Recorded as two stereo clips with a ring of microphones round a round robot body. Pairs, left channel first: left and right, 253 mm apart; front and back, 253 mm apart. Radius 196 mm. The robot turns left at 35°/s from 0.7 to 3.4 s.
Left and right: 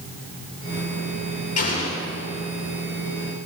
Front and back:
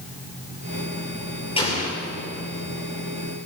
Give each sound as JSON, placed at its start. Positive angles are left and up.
{"t": 1.6, "sound": "an explosion", "azimuth_deg": 70, "distance_m": 9.0}